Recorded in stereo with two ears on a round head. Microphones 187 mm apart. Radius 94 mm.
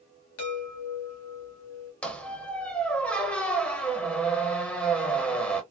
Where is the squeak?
5° left (ahead or behind), 0.7 m.